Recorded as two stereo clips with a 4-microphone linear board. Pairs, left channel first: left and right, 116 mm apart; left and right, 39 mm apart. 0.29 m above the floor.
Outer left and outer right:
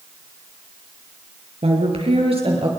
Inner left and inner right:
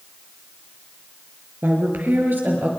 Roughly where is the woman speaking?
Right.